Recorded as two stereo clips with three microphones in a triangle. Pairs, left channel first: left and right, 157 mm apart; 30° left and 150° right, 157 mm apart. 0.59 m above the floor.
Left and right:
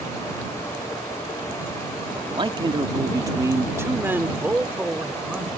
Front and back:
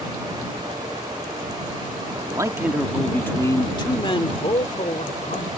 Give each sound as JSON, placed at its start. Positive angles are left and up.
{"t": 2.1, "sound": "a man speaking", "azimuth_deg": -120}